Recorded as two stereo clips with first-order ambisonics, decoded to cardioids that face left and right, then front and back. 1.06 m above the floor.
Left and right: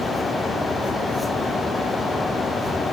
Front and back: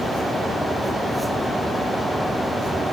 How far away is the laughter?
I don't hear laughter.